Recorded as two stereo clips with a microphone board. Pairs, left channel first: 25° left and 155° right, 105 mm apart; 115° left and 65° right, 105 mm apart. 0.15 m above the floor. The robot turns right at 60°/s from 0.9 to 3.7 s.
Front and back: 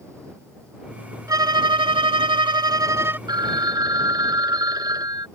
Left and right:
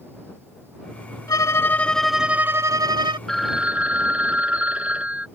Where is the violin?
155° left; by 3.2 s 90° right.